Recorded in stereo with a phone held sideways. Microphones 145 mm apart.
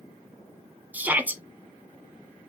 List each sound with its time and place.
0.9 s a shout: 10° right (ahead or behind), 0.8 m